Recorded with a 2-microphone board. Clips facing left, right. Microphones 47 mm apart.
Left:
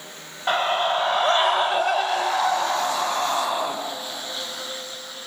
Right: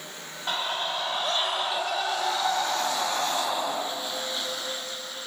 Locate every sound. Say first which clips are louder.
0.5 s a scream: left 8 dB; 30° left (ahead or behind), 1.3 m; by 3.8 s 15° left (ahead or behind), 3 m